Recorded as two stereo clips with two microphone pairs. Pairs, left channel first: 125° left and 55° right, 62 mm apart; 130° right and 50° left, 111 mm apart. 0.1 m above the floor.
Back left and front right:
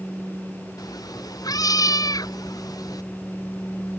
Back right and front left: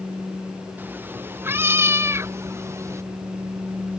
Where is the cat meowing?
125° left; by 3.0 s 115° left.